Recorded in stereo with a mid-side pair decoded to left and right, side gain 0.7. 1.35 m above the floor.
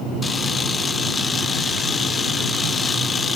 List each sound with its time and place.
0.2 s a camera shutter: 20° left, 1.1 m